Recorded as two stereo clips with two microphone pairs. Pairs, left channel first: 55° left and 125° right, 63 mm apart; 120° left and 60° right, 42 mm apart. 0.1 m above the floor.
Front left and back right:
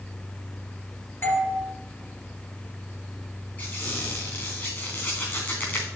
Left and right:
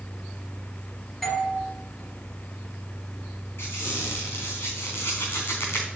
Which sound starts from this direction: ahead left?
A doorbell, at 1.2 s.